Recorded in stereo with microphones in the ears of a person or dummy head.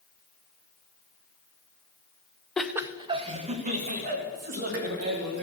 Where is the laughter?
5° left (ahead or behind), 0.5 m; by 5.5 s 50° right (ahead or behind), 2.5 m.